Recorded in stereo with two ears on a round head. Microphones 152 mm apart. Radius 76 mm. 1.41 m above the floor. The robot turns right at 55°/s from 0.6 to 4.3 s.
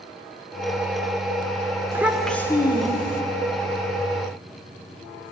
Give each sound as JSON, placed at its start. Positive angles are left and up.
{"t": 1.9, "sound": "a child speaking", "azimuth_deg": -15, "distance_m": 3.5}